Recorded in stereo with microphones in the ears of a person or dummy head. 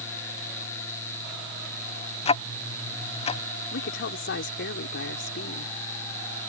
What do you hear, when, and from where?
2.2 s ticking: 30° left (ahead or behind)
3.7 s a woman speaking: 60° left (ahead or behind)